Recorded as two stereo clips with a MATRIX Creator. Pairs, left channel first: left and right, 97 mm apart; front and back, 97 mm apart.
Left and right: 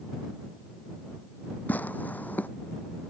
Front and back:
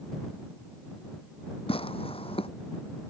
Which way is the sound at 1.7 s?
20° left.